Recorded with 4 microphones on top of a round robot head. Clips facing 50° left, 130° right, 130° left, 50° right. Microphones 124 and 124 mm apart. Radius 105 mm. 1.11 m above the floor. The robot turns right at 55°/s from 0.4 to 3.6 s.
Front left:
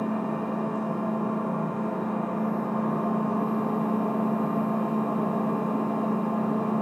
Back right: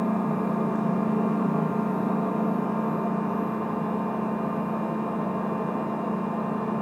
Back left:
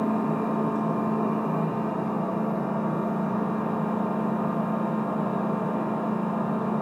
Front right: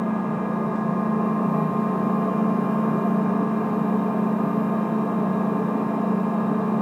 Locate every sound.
0.0 s an engine running: 175° right, 0.8 m; by 6.8 s straight ahead, 0.8 m